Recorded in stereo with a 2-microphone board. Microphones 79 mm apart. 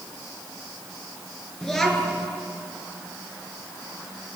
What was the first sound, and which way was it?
A child speaking, 5° left (ahead or behind).